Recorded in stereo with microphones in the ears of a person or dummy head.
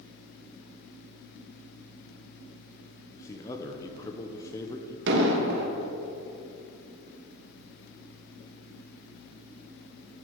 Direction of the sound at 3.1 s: 20° left (ahead or behind).